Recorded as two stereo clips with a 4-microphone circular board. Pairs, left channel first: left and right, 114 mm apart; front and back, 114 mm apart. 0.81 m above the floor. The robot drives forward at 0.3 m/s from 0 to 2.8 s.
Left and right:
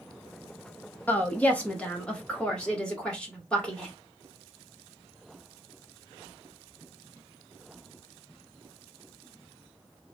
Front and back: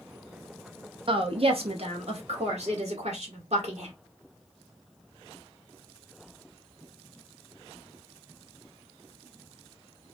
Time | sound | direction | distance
1.1 | a woman speaking | 165° left | 0.6 m